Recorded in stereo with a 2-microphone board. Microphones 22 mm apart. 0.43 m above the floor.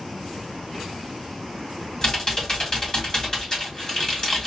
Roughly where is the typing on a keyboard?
Left.